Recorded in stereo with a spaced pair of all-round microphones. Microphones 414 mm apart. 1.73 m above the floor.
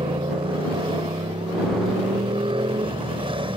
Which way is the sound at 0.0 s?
15° right (ahead or behind).